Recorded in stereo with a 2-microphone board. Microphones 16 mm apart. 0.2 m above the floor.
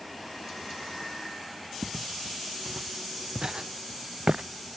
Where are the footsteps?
25° right (ahead or behind); by 4.5 s 75° right (ahead or behind).